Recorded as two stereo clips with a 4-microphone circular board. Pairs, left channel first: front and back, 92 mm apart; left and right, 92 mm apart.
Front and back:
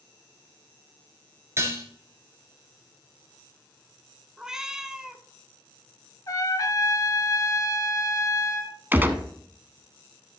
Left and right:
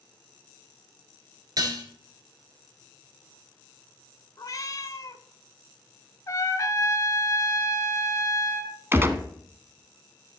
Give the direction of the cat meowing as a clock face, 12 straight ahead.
9 o'clock.